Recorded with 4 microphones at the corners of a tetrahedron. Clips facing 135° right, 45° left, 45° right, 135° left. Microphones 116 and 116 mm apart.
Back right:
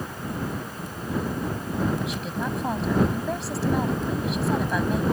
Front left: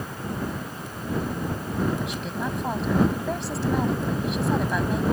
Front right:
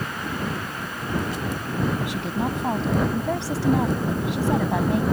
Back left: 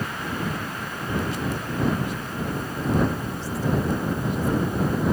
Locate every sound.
2.0 s a woman speaking: 45° right